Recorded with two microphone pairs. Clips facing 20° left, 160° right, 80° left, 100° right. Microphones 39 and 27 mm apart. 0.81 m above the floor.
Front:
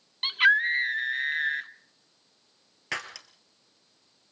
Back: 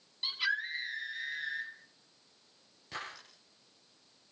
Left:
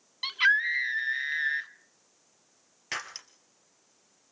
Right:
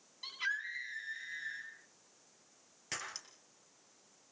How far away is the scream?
About 2.5 m.